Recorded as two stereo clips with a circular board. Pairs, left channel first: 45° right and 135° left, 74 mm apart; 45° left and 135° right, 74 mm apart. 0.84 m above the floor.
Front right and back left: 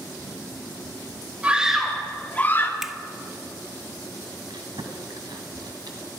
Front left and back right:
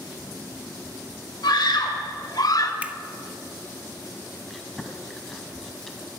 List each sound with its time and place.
1.4 s a scream: 60° left, 1.5 m; by 2.7 s 10° left, 1.7 m
2.8 s a finger snap: 155° right, 0.6 m
4.5 s chewing: 130° left, 1.6 m